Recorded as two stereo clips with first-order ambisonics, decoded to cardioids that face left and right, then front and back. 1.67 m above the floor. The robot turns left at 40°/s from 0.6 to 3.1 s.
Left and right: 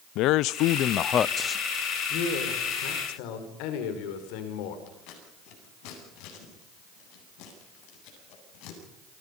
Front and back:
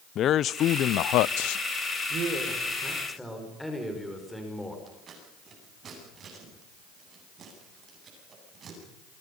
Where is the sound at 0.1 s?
55° left, 0.6 m; by 1.6 s 15° left, 0.6 m.